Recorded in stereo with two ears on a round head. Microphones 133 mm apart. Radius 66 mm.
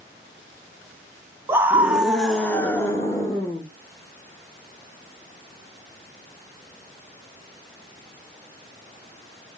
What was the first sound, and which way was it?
A scream, 15° right (ahead or behind).